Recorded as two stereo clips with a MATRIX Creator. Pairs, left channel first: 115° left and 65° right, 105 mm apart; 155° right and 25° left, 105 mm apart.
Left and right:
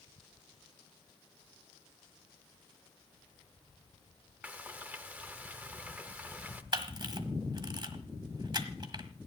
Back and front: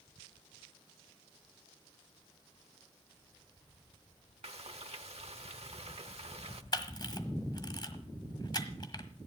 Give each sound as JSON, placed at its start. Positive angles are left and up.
{"t": 4.4, "sound": "frying", "azimuth_deg": 5, "distance_m": 0.9}
{"t": 6.7, "sound": "a camera shutter", "azimuth_deg": -110, "distance_m": 1.3}